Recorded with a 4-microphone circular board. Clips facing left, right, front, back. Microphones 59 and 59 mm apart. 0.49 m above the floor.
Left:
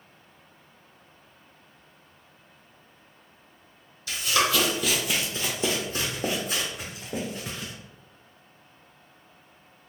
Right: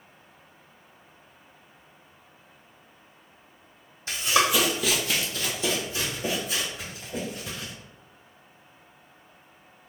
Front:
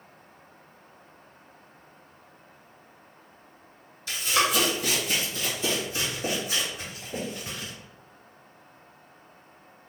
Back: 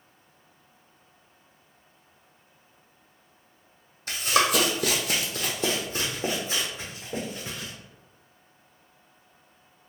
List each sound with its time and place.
4.1 s running footsteps: 140° right, 1.1 m; by 7.7 s 110° left, 2.5 m